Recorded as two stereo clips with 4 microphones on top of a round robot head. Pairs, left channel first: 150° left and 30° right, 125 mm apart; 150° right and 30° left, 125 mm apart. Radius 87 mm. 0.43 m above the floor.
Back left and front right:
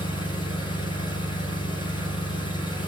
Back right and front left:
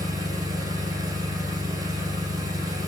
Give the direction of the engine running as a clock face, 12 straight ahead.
9 o'clock.